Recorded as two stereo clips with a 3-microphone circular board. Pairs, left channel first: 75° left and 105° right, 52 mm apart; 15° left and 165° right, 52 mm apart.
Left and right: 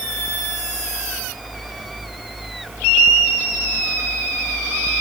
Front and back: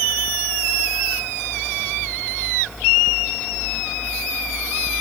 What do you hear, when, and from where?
Only background noise.